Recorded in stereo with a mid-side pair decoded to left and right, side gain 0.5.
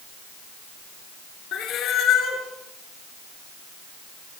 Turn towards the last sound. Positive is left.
turn(degrees=65)